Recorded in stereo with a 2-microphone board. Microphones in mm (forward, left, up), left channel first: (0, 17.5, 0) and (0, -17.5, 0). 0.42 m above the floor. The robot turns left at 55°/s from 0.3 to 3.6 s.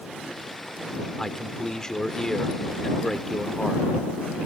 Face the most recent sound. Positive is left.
turn(degrees=5)  # may be behind; listen again after turning